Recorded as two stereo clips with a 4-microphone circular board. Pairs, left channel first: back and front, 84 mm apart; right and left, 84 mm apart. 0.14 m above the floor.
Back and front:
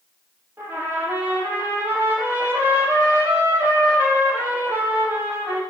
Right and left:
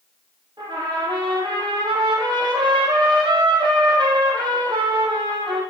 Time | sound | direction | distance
0.6 | a trumpet | 65° left | 5 m